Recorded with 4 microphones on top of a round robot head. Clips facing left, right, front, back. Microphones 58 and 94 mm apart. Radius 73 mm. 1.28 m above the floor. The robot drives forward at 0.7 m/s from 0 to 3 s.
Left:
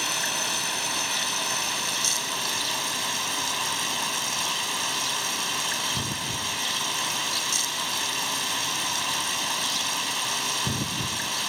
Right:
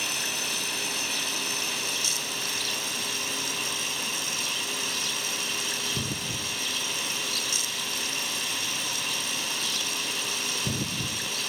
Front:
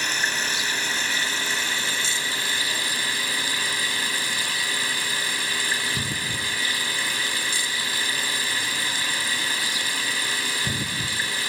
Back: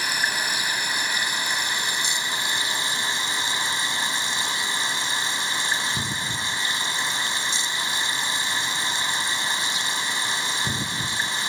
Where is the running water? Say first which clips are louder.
Left 3 dB, back 1 dB; 100° left; by 11.5 s 110° left.